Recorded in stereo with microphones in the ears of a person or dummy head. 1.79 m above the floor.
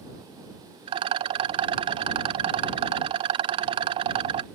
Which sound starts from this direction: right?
A rattle, at 0.9 s.